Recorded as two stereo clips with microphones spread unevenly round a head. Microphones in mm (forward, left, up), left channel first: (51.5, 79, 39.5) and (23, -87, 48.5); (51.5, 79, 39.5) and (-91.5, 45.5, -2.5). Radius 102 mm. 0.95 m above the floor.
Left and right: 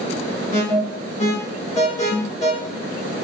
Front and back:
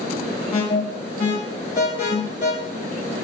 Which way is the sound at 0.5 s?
45° left.